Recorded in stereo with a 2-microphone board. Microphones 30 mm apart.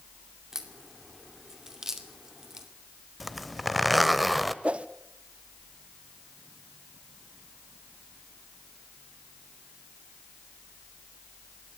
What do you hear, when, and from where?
0.5 s a crack: 15° right (ahead or behind), 2.5 m
3.2 s a zipper: centre (ahead or behind), 1.0 m
4.6 s a whoosh: 40° right (ahead or behind), 0.8 m